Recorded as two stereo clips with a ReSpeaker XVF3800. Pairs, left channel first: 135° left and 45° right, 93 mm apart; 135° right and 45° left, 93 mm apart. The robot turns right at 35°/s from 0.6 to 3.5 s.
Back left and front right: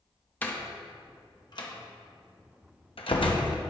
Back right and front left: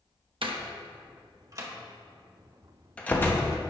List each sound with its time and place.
0.4 s a door slam: 65° left, 1.0 m; by 3.6 s 165° left, 1.0 m